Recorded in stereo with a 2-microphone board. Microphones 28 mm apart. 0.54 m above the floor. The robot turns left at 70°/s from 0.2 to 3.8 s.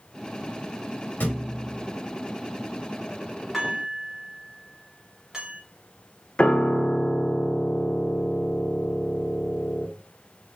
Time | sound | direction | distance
1.2 | a thud | 90° left | 1.2 m
3.5 | dishes clattering | 5° right (ahead or behind) | 1.7 m
6.4 | a piano | 35° left (ahead or behind) | 0.7 m